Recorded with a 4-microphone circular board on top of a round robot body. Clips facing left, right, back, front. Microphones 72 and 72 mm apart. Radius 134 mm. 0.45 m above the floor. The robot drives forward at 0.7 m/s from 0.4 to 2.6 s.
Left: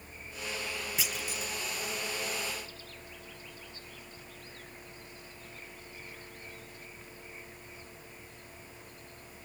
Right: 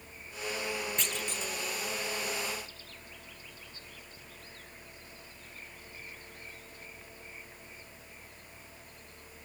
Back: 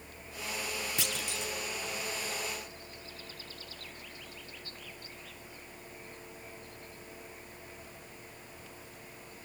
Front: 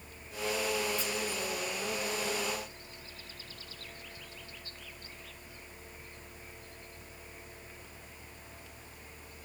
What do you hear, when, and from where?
1.0 s a clunk: 170° left; by 1.5 s 175° left